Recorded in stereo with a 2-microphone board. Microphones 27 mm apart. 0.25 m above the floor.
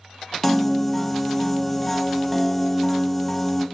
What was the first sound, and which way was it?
A piano, 5° left (ahead or behind).